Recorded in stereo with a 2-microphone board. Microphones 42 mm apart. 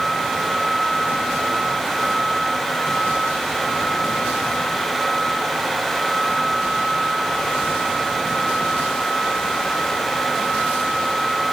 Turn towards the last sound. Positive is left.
No sound to turn to.